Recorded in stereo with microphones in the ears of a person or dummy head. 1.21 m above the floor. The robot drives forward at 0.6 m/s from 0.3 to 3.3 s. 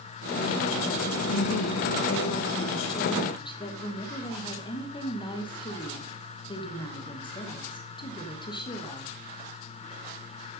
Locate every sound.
1.3 s a woman speaking: 65° left (ahead or behind), 0.6 m; by 9.1 s 30° left (ahead or behind), 1.1 m